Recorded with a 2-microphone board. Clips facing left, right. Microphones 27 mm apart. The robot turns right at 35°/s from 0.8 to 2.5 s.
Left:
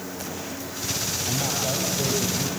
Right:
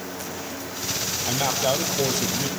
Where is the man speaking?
135° right, 2.5 m; by 2.5 s 90° right, 2.5 m.